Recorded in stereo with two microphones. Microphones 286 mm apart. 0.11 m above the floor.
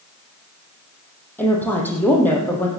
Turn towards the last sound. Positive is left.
turn(degrees=5)  # may be behind; listen again after turning